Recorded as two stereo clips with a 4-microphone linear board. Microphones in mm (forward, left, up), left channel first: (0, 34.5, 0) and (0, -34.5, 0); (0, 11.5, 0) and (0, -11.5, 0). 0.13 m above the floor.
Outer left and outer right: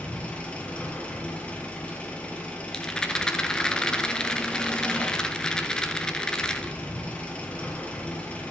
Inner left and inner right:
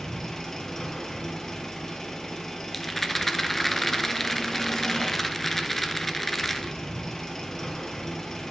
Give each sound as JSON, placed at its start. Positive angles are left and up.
{"t": 0.0, "sound": "an engine running", "side_deg": 20, "distance_m": 1.8}
{"t": 2.7, "sound": "a rattle", "side_deg": 10, "distance_m": 0.9}